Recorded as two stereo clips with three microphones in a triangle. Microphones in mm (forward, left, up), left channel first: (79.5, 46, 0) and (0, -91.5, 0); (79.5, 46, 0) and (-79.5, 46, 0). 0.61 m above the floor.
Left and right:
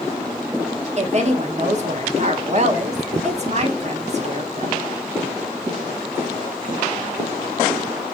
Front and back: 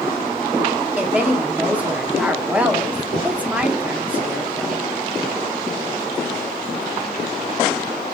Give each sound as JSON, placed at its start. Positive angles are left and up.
{"t": 1.0, "sound": "a woman speaking", "azimuth_deg": -100, "distance_m": 1.0}